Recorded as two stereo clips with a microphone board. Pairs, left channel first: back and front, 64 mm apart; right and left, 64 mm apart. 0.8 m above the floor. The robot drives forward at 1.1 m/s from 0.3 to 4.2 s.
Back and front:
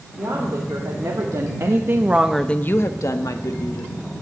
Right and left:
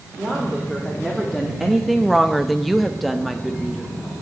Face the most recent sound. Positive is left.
turn(degrees=180)